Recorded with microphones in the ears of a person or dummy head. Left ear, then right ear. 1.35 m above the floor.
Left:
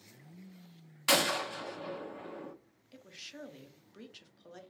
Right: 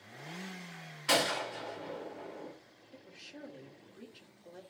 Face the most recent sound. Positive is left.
turn(degrees=65)  # may be behind; listen again after turning